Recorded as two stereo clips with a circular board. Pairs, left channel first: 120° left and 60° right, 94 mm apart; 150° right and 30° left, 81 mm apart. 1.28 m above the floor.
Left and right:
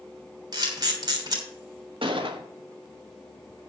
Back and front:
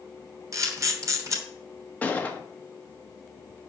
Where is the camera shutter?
15° right, 3 m.